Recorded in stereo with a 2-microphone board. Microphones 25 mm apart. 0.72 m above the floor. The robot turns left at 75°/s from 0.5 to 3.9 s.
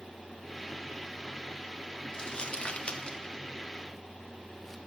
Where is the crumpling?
25° left (ahead or behind), 1.3 m; by 4.8 s 10° left (ahead or behind), 1.3 m.